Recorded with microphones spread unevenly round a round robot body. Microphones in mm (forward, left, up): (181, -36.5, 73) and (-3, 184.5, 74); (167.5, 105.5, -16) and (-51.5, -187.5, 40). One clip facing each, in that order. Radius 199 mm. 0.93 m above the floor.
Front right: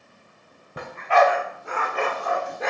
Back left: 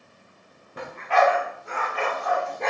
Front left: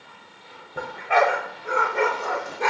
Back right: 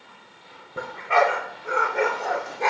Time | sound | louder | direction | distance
0.8 | a dog barking | front right 2 dB, even | 50° right | 1.3 m